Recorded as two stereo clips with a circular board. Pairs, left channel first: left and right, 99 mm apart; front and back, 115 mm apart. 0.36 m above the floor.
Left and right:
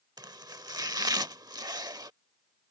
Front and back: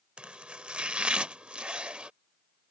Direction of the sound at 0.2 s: 105° right.